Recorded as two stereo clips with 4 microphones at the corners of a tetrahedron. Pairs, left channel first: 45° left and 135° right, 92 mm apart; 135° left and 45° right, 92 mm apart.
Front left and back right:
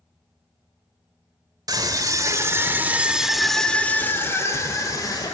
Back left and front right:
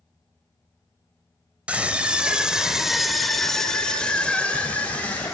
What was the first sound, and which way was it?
A scream, 115° right.